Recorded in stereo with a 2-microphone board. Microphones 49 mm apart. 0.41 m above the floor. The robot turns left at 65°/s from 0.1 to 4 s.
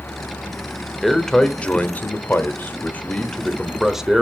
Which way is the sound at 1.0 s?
Straight behind.